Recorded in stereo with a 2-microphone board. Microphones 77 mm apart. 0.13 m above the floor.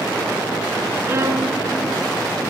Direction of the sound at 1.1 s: 35° right (ahead or behind).